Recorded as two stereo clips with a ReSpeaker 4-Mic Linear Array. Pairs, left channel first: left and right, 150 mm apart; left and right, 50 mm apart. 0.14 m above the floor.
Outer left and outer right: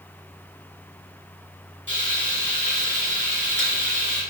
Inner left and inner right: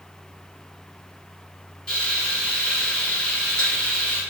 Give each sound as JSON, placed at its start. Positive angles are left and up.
{"t": 1.9, "sound": "frying", "side_deg": 15, "distance_m": 2.0}